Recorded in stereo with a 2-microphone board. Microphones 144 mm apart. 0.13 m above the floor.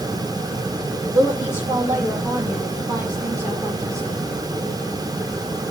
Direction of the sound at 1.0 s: 20° right (ahead or behind).